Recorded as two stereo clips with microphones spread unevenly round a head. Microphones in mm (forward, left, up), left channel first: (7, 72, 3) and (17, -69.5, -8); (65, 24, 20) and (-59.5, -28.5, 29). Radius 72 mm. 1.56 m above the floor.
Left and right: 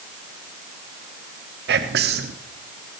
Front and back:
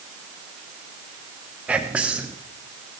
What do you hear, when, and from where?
1.7 s whispering: 75° right, 0.7 m